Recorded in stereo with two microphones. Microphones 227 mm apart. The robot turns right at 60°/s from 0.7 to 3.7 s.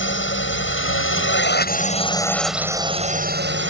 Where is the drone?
75° left; by 3.7 s 105° right.